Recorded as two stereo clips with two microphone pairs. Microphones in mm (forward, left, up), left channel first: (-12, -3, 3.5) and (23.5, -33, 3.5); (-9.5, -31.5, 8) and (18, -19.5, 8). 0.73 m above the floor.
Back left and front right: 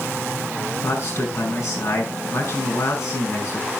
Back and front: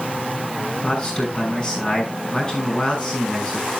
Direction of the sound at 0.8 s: 140° left.